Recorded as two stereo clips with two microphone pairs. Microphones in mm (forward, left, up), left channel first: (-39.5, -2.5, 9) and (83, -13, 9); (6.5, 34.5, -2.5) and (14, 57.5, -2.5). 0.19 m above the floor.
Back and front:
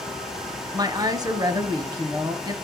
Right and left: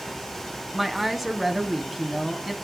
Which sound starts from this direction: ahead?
A woman speaking, at 0.7 s.